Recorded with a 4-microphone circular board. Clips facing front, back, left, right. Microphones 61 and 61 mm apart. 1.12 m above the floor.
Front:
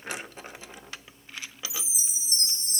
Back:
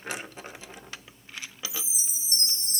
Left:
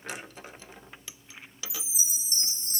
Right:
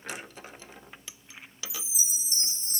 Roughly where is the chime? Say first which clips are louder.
Even, even; behind right.